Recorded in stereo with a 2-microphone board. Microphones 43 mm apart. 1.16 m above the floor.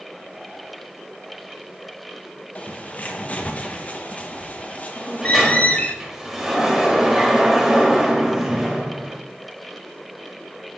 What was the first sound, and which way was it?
A bird, 35° left (ahead or behind).